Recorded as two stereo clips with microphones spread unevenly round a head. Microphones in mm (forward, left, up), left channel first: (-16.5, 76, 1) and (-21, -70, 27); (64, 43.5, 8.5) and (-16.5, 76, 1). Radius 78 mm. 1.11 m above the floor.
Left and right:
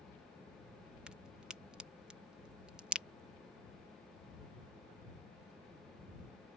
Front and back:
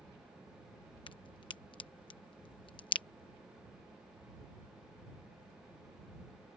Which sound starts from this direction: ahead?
A crack, at 1.1 s.